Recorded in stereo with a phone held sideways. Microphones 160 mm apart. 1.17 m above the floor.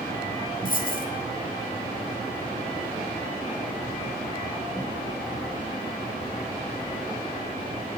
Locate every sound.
0.7 s a dropped coin: 60° left (ahead or behind), 0.8 m